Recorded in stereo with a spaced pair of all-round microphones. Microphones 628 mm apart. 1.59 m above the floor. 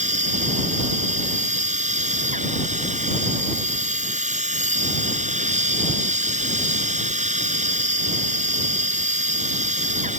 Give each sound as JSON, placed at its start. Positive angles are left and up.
{"t": 0.0, "sound": "a machine running", "side_deg": -10}